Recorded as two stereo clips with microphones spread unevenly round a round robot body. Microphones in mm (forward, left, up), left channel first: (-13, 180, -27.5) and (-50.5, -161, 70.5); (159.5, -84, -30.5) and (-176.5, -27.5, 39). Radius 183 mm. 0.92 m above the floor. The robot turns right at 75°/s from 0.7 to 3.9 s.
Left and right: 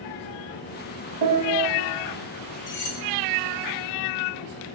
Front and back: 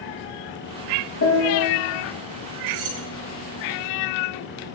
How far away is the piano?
About 3.5 m.